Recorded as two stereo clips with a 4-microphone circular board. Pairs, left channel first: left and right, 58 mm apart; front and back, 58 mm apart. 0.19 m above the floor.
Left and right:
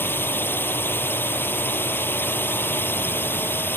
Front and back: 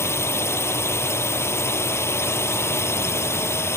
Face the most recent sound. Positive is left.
turn(degrees=40)